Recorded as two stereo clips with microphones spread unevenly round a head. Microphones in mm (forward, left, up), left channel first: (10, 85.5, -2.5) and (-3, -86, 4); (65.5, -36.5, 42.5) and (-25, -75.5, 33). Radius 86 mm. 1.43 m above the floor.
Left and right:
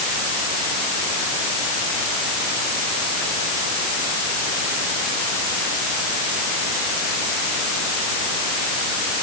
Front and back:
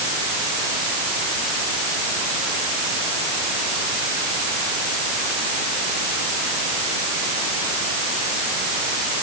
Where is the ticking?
No ticking in this recording.